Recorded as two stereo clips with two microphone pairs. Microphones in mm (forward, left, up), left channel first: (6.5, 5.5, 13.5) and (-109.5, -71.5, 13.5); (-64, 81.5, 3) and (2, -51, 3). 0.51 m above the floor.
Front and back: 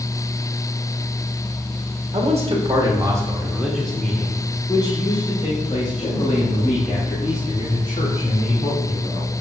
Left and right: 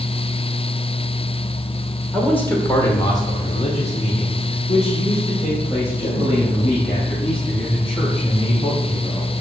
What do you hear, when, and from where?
2.1 s a man speaking: 165° right, 1.9 m; by 9.3 s 60° left, 5.5 m